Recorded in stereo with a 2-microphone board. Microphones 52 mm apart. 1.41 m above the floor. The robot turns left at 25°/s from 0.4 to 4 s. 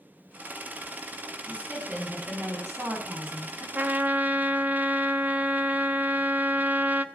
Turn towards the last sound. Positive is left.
turn(degrees=-35)  # may be behind; listen again after turning